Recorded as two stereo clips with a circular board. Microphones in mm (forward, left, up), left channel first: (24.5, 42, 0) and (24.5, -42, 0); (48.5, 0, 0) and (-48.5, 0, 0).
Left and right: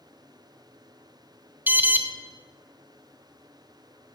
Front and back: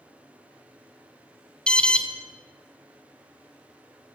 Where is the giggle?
I don't hear a giggle.